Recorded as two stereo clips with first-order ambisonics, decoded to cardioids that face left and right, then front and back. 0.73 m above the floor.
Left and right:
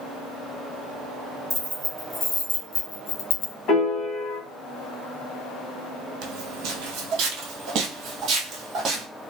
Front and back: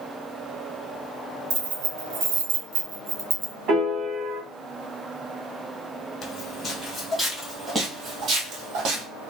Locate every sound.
1.5 s keys jangling: 175° right, 1.0 m; by 3.5 s 100° left, 0.5 m
3.7 s a piano: 130° left, 1.4 m
6.2 s footsteps: 60° right, 1.3 m; by 9.1 s 155° right, 1.3 m